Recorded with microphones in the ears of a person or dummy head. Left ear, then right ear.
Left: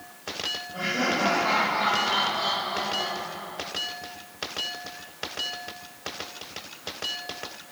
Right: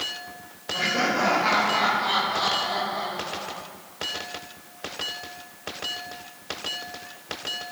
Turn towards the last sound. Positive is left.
turn(degrees=-75)  # may be behind; listen again after turning